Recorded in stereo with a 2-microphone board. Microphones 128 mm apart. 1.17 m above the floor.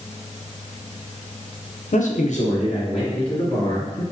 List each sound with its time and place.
1.9 s a man speaking: 70° left (ahead or behind), 0.5 m; by 4.0 s 40° left (ahead or behind), 2 m